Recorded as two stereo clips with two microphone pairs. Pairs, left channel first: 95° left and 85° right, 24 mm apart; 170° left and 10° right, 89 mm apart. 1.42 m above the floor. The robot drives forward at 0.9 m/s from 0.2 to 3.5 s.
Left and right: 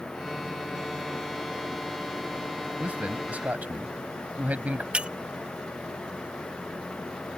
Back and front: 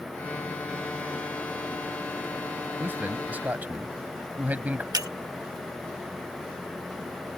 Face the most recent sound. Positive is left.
turn(degrees=-55)